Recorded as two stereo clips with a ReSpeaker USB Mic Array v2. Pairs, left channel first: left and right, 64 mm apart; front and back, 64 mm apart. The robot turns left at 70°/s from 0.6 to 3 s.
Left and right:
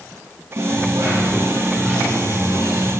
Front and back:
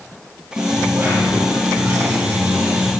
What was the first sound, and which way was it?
A dropped coin, 95° right.